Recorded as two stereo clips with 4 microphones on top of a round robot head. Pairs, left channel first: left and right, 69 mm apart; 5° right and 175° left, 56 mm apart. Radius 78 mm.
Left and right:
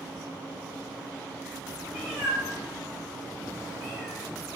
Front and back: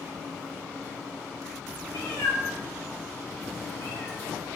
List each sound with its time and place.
1.9 s a cat meowing: 5° right, 0.7 m; by 4.3 s 55° right, 1.6 m